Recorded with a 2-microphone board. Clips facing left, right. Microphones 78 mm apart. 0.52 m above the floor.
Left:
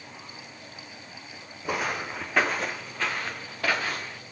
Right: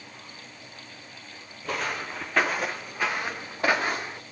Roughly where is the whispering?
I don't hear whispering.